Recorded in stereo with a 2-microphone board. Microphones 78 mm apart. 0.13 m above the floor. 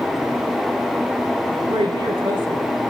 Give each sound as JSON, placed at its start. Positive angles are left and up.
{"t": 1.7, "sound": "a woman speaking", "side_deg": -80, "distance_m": 8.0}